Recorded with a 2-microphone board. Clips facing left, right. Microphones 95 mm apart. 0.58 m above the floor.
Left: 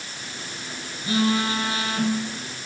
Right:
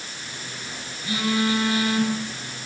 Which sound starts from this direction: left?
A phone buzzing, at 0.2 s.